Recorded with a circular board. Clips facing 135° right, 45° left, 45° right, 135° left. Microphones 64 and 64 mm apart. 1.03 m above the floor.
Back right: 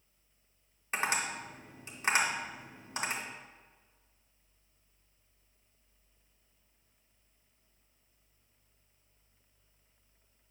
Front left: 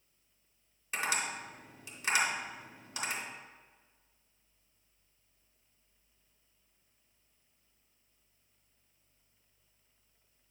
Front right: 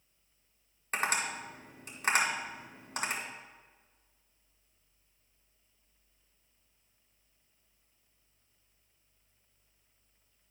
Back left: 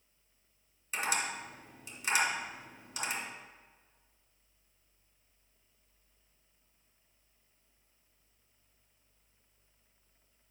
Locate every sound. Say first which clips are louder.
0.9 s tapping: back right 2 dB, front right 2 dB; 80° right, 1.8 m